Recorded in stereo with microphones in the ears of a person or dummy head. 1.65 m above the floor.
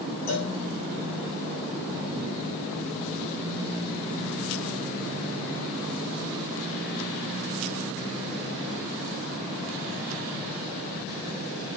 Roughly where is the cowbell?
Left.